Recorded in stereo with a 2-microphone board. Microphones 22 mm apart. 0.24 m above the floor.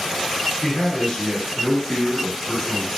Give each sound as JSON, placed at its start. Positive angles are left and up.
{"t": 0.6, "sound": "a man speaking", "side_deg": 50, "distance_m": 1.4}